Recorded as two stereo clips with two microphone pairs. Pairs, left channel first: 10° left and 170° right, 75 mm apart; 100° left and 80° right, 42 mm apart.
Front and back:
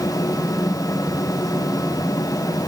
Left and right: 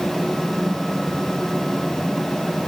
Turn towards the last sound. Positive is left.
No sound to turn to.